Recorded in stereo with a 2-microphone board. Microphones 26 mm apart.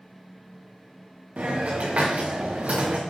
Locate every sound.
1.4 s a hiss: 65° right (ahead or behind), 3.5 m